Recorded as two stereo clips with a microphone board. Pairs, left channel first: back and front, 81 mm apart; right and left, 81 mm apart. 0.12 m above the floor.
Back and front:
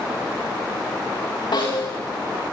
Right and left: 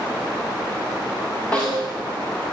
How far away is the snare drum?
About 10 m.